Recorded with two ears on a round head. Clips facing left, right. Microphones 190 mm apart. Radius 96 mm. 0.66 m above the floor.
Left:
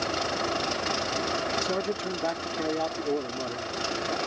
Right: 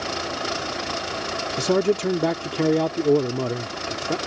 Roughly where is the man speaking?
Right.